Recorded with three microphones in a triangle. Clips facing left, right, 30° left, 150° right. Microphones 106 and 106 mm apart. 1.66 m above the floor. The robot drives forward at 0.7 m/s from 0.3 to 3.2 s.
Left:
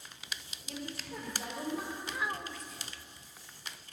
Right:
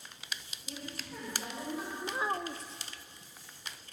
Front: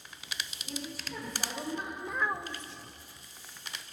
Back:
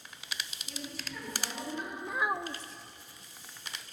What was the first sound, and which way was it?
A woman speaking, 70° left.